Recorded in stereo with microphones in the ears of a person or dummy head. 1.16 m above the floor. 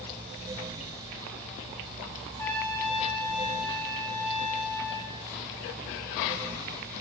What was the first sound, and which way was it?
A trumpet, 10° left (ahead or behind).